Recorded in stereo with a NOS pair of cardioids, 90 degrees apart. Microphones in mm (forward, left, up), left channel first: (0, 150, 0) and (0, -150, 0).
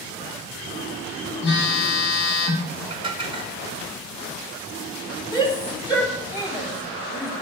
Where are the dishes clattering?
15° right, 2 m.